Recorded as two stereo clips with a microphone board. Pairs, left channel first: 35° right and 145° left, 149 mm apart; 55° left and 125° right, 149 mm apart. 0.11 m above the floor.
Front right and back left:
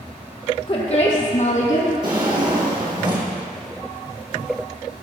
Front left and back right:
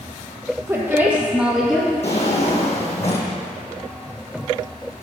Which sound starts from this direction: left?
A drawer, at 2.0 s.